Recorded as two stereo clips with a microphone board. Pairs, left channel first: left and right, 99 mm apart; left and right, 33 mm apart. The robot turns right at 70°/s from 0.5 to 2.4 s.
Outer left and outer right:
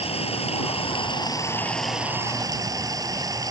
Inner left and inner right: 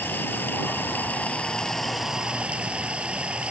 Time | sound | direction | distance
0.0 | running water | 85° left | ?